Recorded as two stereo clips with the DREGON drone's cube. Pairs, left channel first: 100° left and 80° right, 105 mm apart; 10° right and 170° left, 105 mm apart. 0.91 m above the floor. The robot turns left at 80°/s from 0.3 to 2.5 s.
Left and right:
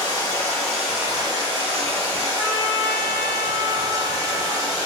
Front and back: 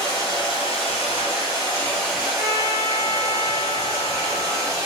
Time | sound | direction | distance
0.0 | running water | 45° left | 1.8 m
2.4 | a trumpet | 140° right | 1.4 m